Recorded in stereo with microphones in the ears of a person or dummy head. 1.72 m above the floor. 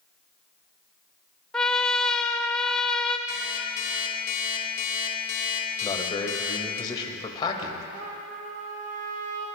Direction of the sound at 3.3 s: 50° left (ahead or behind).